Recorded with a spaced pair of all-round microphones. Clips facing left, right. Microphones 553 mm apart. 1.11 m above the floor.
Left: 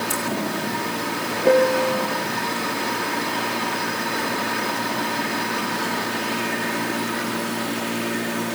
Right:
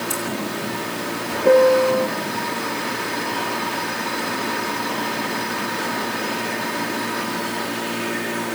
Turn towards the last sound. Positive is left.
turn(degrees=5)  # may be behind; listen again after turning